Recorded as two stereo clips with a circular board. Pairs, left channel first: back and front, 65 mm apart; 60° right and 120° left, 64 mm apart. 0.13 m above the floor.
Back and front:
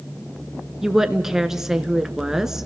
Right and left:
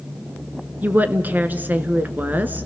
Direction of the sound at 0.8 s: 80° left.